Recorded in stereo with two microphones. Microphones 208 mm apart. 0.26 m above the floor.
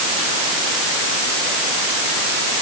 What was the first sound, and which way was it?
Only background noise.